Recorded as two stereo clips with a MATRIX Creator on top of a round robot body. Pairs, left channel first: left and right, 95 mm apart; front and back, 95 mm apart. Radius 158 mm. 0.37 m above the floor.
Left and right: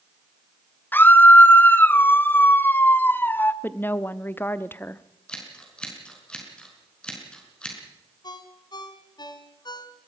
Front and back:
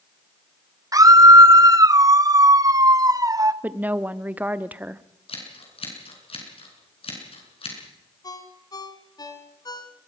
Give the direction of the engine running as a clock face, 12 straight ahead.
No engine running in this recording.